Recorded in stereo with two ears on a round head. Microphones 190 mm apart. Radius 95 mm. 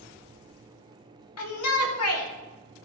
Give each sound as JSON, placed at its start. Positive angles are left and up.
{"t": 1.4, "sound": "a shout", "side_deg": 80, "distance_m": 2.5}